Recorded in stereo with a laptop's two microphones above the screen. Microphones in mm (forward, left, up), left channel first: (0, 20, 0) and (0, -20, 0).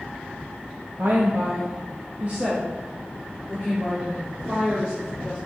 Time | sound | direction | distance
1.0 | a woman speaking | 50° right (ahead or behind) | 1.1 m